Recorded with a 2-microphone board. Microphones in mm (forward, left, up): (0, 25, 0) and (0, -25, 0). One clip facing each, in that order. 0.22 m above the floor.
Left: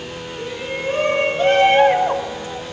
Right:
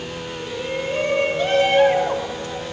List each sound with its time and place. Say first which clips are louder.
0.4 s a shout: left 1 dB; 65° left (ahead or behind), 4 m; by 2.7 s centre (ahead or behind), 1.4 m